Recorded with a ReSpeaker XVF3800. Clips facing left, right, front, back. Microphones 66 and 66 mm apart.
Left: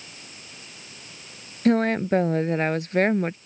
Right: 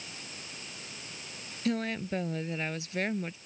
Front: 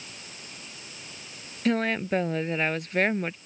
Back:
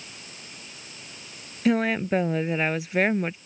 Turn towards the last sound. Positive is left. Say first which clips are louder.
# left 11 dB, back 3 dB
turn(degrees=95)